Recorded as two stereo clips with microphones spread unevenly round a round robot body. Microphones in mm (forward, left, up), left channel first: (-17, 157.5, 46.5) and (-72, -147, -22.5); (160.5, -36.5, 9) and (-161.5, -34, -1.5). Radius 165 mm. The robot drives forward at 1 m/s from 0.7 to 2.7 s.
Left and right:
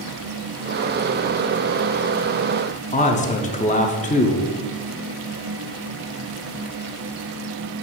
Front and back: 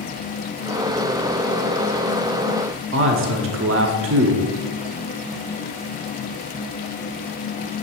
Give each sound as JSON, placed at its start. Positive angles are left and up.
{"t": 2.9, "sound": "a man speaking", "azimuth_deg": 155, "distance_m": 0.9}